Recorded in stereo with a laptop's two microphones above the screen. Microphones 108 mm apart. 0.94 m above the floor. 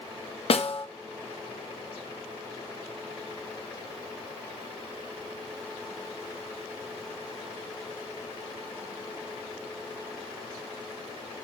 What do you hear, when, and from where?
0.5 s a snare drum: 60° left (ahead or behind), 0.8 m